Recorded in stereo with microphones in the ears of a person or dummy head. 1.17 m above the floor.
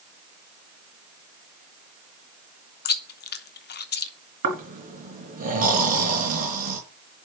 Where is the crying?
No crying in this recording.